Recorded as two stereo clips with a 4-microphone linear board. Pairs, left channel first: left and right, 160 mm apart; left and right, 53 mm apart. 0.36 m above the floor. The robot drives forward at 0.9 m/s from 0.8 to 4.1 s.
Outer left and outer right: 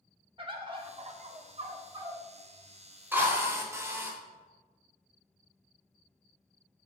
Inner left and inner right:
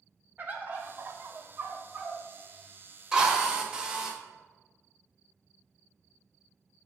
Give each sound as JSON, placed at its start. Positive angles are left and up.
{"t": 0.4, "sound": "a bird", "side_deg": -35, "distance_m": 0.6}
{"t": 3.1, "sound": "a drill", "side_deg": -15, "distance_m": 0.8}